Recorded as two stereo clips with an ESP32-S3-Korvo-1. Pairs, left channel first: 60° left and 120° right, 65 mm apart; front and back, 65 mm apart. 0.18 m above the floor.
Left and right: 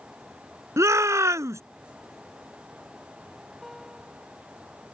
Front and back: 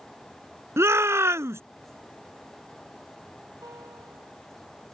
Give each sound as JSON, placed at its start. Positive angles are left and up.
{"t": 0.8, "sound": "a shout", "azimuth_deg": -145}
{"t": 3.6, "sound": "a guitar", "azimuth_deg": 150}